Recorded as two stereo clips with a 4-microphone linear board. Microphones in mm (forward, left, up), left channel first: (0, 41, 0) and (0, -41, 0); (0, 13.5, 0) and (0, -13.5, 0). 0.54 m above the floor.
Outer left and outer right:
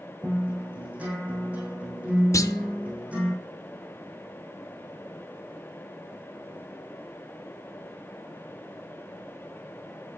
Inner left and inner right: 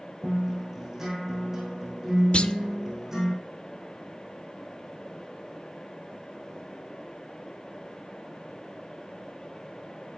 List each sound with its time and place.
0.2 s a guitar: 15° right (ahead or behind), 5 m
2.3 s a clunk: 40° left (ahead or behind), 0.7 m